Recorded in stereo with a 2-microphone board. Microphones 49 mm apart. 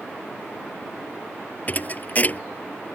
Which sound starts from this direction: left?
A thud, at 1.7 s.